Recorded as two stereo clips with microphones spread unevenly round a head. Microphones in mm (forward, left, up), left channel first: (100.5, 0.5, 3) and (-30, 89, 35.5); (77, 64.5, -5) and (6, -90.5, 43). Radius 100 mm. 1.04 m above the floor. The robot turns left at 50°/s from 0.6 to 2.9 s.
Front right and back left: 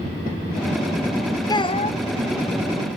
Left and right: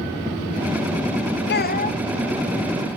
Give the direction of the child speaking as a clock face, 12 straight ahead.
11 o'clock.